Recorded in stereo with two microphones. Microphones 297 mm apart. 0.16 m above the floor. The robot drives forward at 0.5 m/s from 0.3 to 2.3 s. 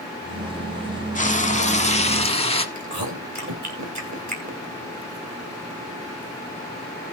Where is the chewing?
75° right (ahead or behind), 2.5 m.